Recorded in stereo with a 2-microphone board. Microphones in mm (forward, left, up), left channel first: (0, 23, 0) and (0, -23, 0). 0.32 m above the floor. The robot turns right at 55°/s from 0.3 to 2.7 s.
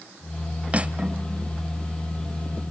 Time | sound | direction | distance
0.7 | cutlery clinking | 55° right | 0.8 m